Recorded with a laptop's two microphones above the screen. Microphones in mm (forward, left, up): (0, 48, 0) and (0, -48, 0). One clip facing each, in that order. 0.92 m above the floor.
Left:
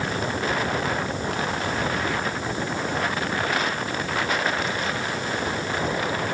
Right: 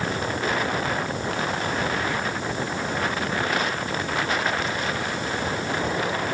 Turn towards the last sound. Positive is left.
No sound to turn to.